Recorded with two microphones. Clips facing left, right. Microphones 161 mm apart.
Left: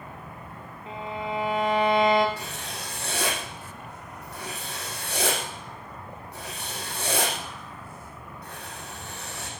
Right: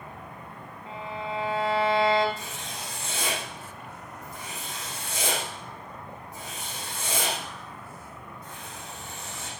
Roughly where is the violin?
Centre.